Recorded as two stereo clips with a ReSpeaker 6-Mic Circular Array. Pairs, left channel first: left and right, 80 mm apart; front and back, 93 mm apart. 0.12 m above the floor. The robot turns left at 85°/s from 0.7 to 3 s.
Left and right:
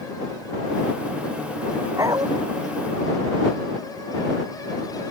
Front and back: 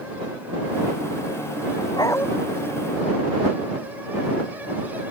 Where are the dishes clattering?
I don't hear dishes clattering.